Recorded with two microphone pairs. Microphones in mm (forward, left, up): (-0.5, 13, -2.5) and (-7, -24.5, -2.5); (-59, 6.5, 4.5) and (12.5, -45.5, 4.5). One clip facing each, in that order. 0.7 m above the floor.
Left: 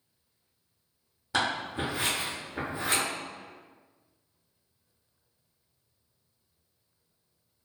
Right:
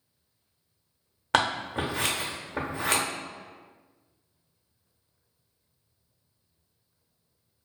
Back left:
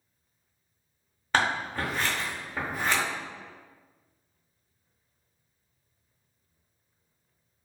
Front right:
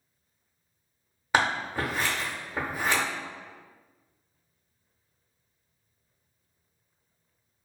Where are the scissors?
115° right, 0.6 m.